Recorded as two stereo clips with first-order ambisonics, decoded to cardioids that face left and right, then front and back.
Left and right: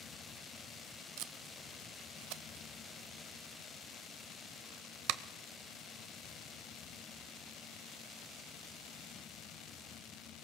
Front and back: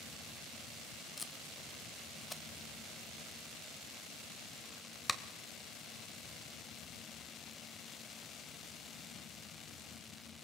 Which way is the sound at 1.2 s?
80° right.